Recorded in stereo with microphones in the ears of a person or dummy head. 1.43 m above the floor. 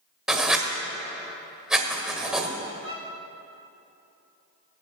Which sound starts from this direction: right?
A violin, at 2.8 s.